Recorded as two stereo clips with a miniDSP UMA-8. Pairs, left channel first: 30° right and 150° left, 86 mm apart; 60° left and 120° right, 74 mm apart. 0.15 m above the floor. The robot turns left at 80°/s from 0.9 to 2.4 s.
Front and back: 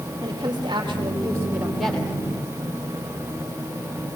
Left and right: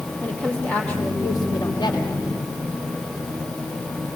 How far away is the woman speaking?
About 5 m.